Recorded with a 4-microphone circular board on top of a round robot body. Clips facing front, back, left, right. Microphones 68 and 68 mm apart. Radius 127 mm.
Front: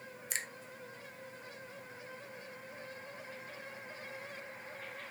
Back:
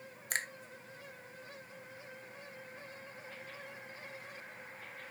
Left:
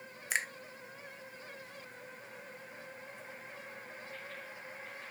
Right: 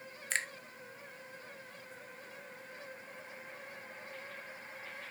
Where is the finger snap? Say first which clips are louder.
Back 5 dB, left 2 dB; 165° left, 0.6 m.